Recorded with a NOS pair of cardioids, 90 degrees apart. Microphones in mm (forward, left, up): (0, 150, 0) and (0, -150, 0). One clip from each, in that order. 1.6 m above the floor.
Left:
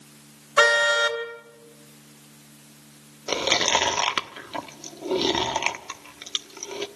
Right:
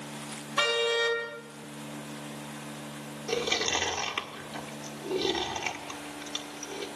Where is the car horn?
60° left, 3.5 m.